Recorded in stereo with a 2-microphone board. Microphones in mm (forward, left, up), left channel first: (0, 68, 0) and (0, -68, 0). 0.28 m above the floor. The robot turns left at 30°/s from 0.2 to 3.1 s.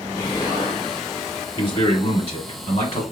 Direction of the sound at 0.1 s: 20° left (ahead or behind).